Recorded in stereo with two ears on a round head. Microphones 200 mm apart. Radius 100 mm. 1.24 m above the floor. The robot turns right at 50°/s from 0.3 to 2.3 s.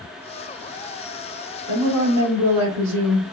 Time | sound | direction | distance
1.7 | a woman speaking | 125° right | 1.7 m